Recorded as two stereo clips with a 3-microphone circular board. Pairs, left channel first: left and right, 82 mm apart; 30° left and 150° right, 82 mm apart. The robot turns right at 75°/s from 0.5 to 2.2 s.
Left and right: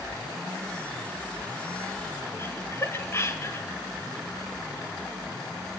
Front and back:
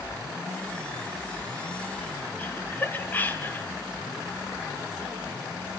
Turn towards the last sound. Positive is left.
turn(degrees=75)